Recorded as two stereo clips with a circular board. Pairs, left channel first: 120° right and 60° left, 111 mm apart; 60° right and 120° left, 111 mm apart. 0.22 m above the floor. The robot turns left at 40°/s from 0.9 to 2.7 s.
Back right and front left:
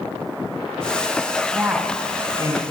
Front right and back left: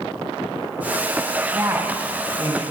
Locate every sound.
1.5 s a woman speaking: 115° left, 1.1 m; by 2.6 s 70° left, 1.1 m